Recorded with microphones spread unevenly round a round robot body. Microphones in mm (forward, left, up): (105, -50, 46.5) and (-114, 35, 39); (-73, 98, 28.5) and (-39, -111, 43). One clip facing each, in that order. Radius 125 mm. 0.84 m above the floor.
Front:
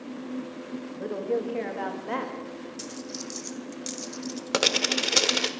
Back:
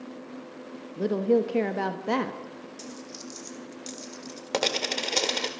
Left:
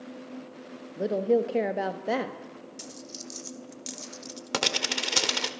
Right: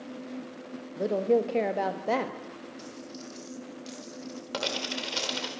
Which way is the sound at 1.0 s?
Straight behind.